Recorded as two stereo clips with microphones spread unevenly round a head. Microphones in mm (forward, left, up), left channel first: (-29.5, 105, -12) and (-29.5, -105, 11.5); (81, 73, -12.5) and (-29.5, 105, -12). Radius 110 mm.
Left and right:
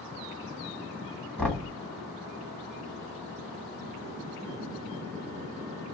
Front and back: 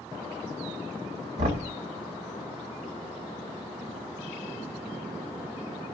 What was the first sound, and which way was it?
Knocking, 175° left.